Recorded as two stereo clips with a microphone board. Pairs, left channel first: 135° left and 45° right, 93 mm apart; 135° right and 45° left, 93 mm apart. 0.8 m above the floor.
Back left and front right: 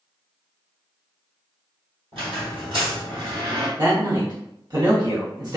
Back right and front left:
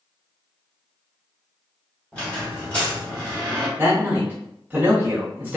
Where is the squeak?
65° right, 1.5 m.